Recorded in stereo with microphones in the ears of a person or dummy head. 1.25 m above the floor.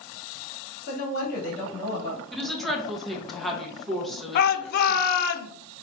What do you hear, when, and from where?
0.9 s a woman speaking: 55° left (ahead or behind), 2.5 m
2.3 s a woman speaking: centre (ahead or behind), 1.0 m
4.3 s a shout: 50° left (ahead or behind), 0.6 m